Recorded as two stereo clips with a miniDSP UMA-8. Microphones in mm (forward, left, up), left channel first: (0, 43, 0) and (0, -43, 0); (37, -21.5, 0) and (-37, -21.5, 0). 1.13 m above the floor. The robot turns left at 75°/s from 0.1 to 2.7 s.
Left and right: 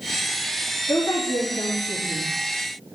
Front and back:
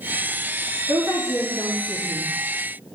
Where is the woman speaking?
130° left, 2.5 m; by 2.3 s 20° left, 2.5 m.